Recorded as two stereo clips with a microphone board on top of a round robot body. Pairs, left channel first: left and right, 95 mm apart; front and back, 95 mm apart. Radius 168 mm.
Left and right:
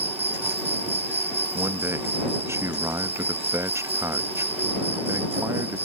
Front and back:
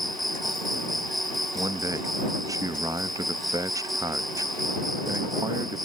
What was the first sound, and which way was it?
An insect, 90° right.